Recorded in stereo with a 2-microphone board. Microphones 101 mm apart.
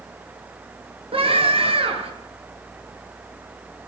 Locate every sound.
1.1 s a scream: 65° right (ahead or behind), 8 m